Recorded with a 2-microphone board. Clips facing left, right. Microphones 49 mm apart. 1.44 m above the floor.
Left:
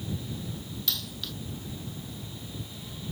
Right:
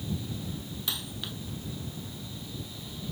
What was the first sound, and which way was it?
A dropped coin, 20° right (ahead or behind).